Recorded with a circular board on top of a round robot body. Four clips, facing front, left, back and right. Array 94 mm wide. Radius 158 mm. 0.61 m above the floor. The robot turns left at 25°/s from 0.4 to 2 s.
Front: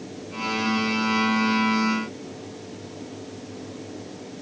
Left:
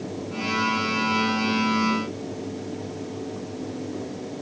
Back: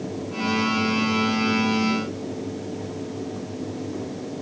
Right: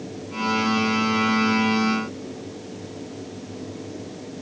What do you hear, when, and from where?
Only background noise.